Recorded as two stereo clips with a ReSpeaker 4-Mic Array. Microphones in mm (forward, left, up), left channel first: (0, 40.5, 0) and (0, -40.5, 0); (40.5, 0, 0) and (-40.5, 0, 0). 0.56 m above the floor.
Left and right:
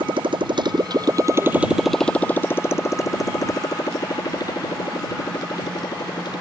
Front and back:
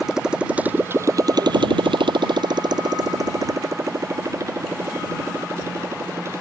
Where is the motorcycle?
95° right; by 6.4 s 125° left.